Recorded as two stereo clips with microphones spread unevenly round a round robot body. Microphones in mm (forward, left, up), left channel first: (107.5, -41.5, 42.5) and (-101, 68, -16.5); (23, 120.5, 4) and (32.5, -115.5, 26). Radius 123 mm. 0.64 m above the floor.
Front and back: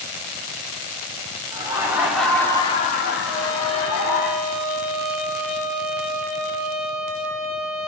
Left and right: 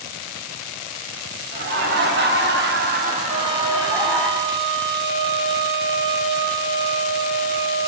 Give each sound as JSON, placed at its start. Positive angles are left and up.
{"t": 1.5, "sound": "laughter", "azimuth_deg": -140, "distance_m": 2.5}
{"t": 3.3, "sound": "a trumpet", "azimuth_deg": -120, "distance_m": 5.0}